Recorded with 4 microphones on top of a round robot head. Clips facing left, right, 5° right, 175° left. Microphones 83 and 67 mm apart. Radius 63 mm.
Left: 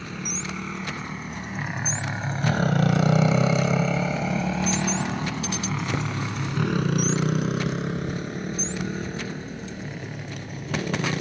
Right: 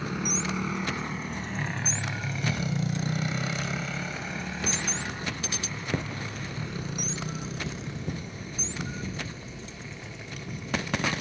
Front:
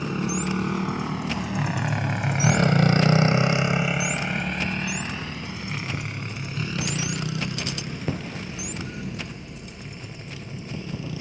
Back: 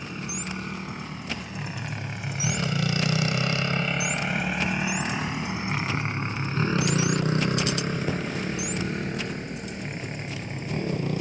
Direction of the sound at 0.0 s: 10° right.